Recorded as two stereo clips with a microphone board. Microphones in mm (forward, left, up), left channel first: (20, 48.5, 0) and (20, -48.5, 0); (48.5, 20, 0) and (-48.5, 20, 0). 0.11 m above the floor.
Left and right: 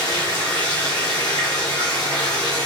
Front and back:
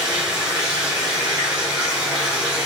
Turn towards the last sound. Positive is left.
turn(degrees=105)